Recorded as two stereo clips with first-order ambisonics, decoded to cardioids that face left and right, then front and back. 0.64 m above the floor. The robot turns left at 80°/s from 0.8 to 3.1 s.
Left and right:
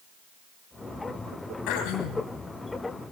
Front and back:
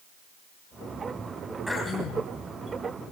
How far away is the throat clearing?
About 2 m.